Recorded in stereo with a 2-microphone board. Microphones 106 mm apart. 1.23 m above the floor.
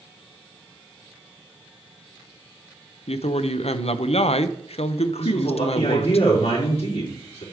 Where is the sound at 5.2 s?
80° left, 3.5 m.